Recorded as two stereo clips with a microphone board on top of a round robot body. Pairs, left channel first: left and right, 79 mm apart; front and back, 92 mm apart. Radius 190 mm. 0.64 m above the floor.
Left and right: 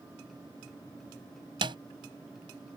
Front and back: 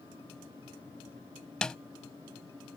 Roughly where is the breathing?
No breathing in this recording.